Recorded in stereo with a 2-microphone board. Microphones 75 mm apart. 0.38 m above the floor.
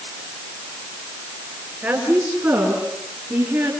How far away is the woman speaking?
About 7.5 m.